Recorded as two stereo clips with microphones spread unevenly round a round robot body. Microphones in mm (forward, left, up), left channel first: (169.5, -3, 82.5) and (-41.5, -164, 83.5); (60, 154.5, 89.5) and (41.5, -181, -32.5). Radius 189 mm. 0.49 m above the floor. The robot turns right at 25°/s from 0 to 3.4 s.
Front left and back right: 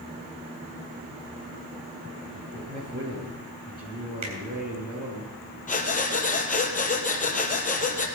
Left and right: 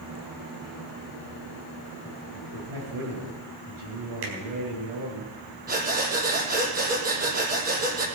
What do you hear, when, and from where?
2.3 s a man speaking: 110° right, 7 m; by 5.2 s 85° right, 7 m
4.2 s a finger snap: 135° right, 4 m
5.7 s breathing: 25° right, 3 m